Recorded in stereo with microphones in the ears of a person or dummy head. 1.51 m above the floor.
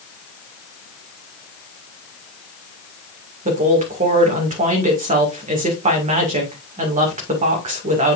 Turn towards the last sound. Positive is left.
turn(degrees=-35)  # may be behind; listen again after turning